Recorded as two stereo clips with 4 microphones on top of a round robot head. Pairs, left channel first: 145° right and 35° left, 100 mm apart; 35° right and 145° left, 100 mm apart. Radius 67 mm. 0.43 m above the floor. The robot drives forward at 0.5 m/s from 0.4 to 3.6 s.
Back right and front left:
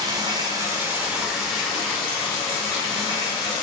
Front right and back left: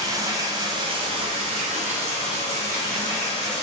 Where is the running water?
90° left, 0.7 m; by 3.6 s 155° left, 1.7 m.